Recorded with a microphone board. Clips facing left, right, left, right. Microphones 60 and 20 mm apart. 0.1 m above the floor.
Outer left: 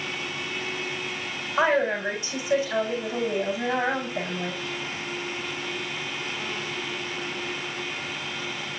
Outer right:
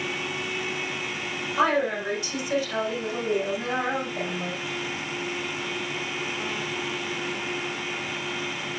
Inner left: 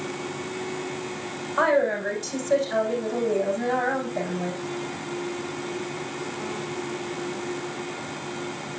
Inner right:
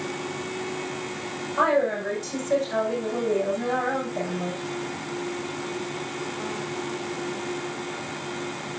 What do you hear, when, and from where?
1.6 s a woman speaking: 25° left (ahead or behind), 6.5 m